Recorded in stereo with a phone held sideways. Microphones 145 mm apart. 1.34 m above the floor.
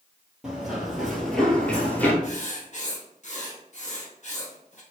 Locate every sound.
0.4 s running footsteps: 5° right (ahead or behind), 1.6 m; by 2.1 s 15° left (ahead or behind), 1.3 m
2.2 s writing: 55° left (ahead or behind), 1.1 m